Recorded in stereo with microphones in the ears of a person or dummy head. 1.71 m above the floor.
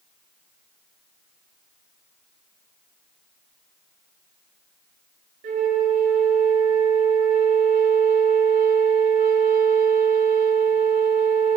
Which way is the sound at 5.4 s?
40° right (ahead or behind).